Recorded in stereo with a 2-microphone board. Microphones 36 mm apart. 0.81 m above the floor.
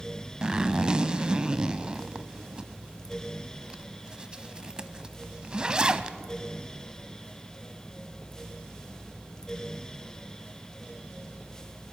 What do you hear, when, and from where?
0.4 s a zipper: 25° right (ahead or behind), 0.7 m